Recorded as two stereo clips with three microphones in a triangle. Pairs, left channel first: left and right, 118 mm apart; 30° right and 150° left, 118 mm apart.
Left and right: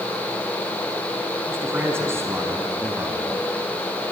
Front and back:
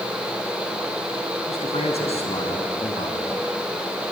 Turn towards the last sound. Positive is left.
turn(degrees=-25)